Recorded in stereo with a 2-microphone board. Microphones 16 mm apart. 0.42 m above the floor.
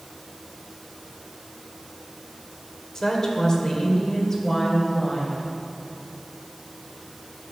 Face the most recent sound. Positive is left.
turn(degrees=15)  # may be behind; listen again after turning